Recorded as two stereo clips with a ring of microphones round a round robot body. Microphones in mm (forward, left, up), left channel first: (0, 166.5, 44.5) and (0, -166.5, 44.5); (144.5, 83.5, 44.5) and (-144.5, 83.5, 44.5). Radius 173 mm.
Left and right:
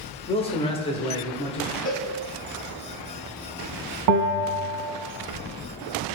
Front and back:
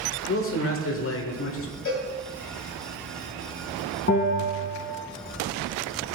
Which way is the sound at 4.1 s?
60° right.